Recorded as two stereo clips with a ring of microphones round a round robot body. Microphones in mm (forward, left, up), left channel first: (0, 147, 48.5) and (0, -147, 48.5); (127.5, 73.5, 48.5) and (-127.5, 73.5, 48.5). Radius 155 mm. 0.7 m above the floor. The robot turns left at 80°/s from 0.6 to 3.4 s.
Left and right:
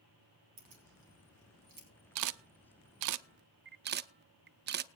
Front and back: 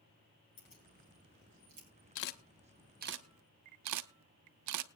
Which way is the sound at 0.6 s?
55° right.